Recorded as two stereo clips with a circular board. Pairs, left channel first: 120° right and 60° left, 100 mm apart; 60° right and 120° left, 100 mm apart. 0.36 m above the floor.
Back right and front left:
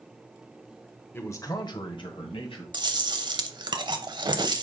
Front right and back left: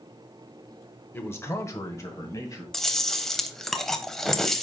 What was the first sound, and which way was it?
A man speaking, 95° right.